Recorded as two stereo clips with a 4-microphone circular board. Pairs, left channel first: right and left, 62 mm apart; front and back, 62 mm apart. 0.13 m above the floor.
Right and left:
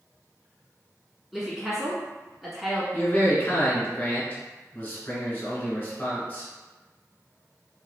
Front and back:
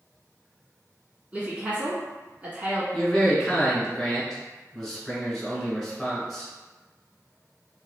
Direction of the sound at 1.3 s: 170° left.